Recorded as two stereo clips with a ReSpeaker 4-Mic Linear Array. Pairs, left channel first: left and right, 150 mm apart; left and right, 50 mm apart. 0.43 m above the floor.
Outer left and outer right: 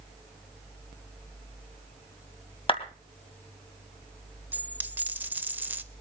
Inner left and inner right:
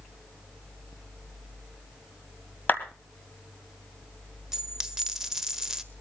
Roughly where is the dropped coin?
Centre.